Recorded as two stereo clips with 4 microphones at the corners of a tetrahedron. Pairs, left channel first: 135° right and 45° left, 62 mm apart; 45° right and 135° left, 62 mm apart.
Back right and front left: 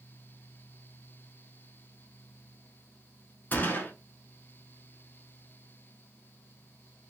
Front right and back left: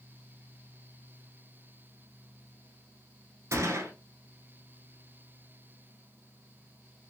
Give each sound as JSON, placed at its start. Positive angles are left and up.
{"t": 3.5, "sound": "a gunshot", "azimuth_deg": 165, "distance_m": 0.7}